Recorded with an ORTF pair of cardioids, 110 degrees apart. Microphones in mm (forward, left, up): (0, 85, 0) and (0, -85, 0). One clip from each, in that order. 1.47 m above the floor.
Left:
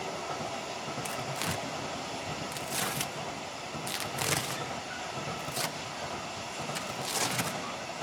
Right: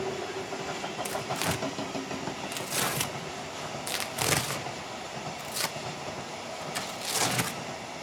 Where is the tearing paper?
15° right, 1.1 m.